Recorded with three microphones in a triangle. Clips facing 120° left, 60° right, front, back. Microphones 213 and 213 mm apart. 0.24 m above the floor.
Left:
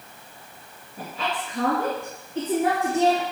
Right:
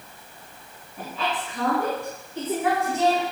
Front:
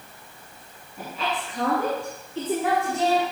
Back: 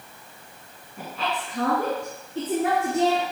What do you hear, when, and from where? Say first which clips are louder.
1.0 s a woman speaking: right 1 dB, even; 165° left, 1.9 m; by 3.2 s 160° left, 3.5 m